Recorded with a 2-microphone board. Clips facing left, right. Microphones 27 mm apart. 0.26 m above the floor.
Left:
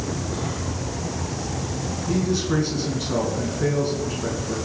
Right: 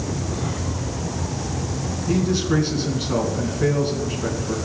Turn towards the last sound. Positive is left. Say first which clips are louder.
# right 2 dB
turn(degrees=-15)  # may be behind; listen again after turning